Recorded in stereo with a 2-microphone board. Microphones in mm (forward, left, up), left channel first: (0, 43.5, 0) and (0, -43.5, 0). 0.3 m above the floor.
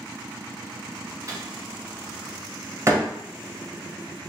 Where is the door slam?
35° right (ahead or behind), 0.8 m.